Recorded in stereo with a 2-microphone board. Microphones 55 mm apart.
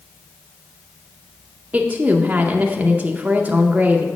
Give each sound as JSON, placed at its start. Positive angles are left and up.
{"t": 1.7, "sound": "a woman speaking", "side_deg": -25, "distance_m": 0.5}